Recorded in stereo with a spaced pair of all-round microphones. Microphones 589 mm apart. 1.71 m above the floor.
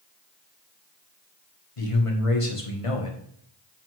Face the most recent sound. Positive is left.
turn(degrees=60)  # may be behind; listen again after turning